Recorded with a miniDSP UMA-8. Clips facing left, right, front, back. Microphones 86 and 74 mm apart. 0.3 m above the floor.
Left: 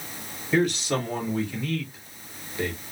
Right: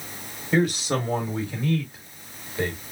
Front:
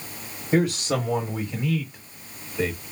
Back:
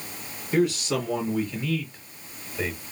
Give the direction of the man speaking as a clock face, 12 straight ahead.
1 o'clock.